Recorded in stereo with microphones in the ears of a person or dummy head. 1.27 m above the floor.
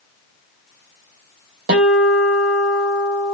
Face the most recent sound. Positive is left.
turn(degrees=-55)  # may be behind; listen again after turning